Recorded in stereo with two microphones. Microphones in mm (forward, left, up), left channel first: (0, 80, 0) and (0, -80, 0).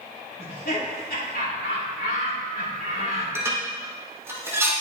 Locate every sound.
0.4 s laughter: 70° left (ahead or behind), 2.5 m
3.4 s dishes clattering: 15° right (ahead or behind), 2.5 m